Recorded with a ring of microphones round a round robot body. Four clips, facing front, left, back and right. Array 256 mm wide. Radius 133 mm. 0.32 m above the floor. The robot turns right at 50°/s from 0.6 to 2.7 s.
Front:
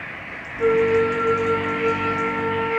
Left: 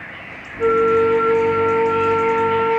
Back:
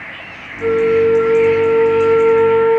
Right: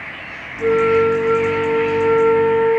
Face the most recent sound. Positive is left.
turn(degrees=175)